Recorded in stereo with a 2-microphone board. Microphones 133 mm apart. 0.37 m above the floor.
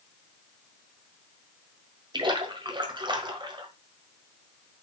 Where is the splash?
35° right (ahead or behind), 1.4 m.